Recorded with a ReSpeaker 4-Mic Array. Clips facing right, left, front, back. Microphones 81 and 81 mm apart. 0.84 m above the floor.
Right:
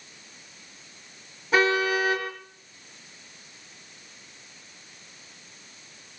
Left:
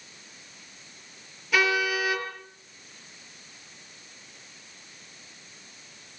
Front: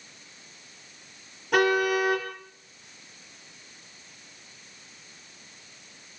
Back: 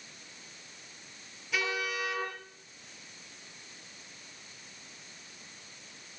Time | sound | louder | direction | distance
1.5 | a car horn | right 3 dB, front 12 dB | 35° right | 7 m